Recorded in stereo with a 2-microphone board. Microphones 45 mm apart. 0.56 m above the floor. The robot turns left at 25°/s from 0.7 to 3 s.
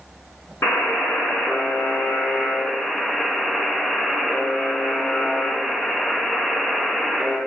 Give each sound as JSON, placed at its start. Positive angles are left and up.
{"t": 0.6, "sound": "a buzzer", "azimuth_deg": 80, "distance_m": 3.0}